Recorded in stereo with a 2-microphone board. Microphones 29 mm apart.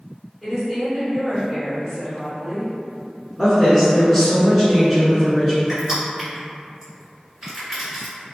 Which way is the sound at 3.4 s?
Centre (ahead or behind).